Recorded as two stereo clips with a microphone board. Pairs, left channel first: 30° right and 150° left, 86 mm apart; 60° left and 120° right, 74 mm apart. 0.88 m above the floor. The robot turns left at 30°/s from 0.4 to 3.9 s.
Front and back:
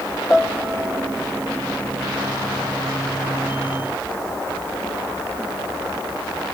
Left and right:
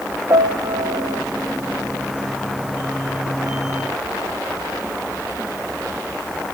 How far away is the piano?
About 1.2 m.